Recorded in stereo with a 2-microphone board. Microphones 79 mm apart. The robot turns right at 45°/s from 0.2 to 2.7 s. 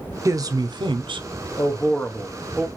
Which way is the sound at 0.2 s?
140° right.